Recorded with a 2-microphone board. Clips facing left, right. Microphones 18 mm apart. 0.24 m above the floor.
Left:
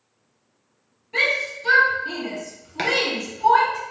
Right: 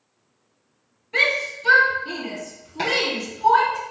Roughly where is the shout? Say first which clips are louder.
Right 1 dB; centre.